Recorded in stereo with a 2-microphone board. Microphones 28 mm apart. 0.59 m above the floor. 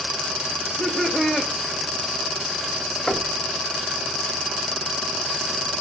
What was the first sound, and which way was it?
Laughter, 10° left (ahead or behind).